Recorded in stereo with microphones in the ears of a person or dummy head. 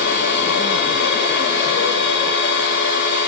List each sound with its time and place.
0.0 s a machine running: 55° left (ahead or behind), 1.8 m